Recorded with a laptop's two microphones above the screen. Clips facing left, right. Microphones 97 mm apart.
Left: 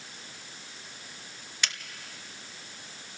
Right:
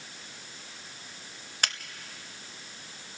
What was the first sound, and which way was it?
A finger snap, 45° right (ahead or behind).